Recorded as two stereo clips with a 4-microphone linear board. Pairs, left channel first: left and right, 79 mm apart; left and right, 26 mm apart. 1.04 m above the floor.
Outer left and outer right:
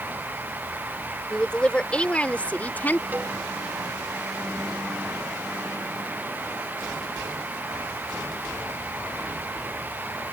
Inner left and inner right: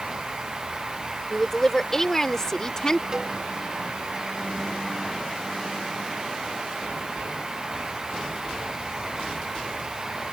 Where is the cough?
I don't hear a cough.